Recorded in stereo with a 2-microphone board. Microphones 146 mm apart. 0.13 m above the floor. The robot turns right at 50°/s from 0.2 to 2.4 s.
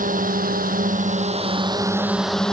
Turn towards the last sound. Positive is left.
turn(degrees=5)